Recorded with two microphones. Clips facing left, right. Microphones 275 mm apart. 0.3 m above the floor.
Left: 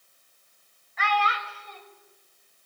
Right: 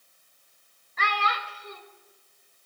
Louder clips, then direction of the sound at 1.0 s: Left 4 dB; 45° right (ahead or behind).